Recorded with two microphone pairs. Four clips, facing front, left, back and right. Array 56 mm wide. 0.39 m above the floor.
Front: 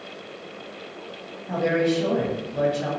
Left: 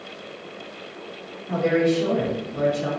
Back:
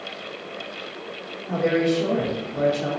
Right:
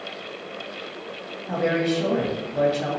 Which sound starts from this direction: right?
A woman speaking, at 1.5 s.